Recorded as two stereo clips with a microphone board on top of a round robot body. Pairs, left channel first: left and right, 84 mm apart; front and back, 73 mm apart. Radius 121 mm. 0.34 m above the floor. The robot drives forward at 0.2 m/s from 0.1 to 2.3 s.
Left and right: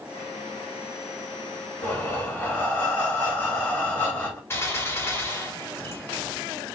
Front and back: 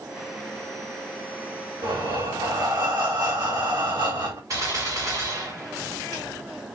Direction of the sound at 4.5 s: 150° left.